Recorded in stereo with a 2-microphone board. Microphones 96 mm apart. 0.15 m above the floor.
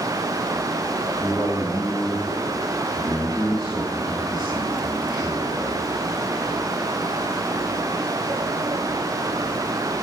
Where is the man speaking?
Centre (ahead or behind), 4.5 m.